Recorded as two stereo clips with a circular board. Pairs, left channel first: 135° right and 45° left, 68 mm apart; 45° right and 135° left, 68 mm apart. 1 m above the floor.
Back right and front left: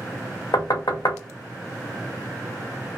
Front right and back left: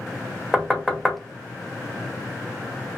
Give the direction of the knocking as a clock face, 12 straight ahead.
5 o'clock.